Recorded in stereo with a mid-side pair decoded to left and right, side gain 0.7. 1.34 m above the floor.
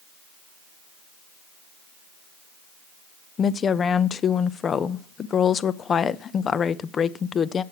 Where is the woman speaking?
30° left, 0.9 m.